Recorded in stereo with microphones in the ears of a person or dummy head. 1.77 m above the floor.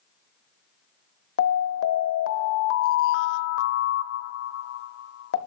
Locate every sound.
1.4 s an alarm: 65° left (ahead or behind), 0.9 m